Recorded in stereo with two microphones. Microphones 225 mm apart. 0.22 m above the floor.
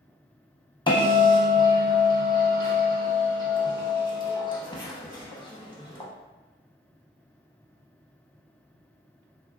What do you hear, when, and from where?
0.9 s a bell: 20° left (ahead or behind), 0.6 m